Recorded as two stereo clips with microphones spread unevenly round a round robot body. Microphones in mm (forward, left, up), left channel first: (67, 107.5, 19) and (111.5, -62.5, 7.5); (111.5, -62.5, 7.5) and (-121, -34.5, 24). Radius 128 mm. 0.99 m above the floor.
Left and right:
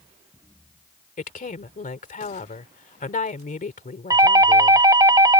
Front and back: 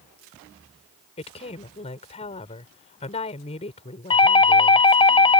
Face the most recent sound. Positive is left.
turn(degrees=-40)